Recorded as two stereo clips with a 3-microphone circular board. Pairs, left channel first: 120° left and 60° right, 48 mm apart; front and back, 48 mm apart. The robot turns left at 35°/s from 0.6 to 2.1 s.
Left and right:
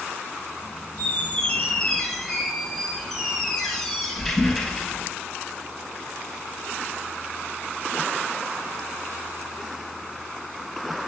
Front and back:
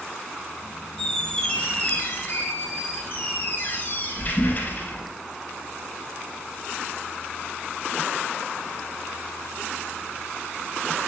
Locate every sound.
1.0 s a squeak: 75° left, 0.7 m; by 5.1 s 35° left, 0.7 m